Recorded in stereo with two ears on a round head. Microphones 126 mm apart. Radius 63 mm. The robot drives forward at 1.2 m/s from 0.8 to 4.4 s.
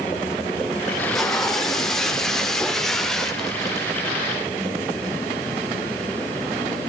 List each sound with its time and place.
0.9 s tape being pulled: centre (ahead or behind), 2.0 m